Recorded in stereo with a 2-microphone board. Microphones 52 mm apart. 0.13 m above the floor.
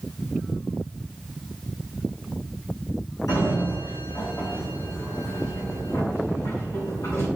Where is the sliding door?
75° left (ahead or behind), 3.5 m.